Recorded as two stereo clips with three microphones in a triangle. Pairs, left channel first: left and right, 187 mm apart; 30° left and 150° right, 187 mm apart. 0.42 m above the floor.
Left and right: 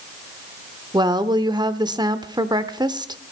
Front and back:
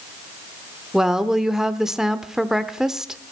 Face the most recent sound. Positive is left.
turn(degrees=-65)